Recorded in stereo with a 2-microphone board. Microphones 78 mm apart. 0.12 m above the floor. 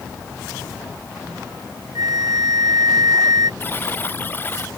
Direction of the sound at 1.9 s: 55° right (ahead or behind).